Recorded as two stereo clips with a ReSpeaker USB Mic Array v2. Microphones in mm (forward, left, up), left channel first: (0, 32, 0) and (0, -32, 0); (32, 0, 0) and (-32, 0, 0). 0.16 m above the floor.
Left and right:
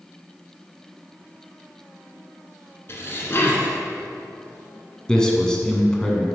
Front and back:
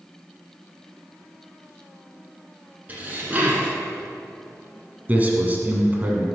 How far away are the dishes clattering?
About 1.5 m.